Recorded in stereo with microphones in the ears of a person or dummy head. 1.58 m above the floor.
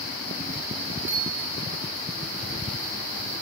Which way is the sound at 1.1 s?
15° right (ahead or behind).